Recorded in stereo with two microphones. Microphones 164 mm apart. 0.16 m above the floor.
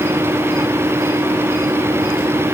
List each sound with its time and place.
Only background noise.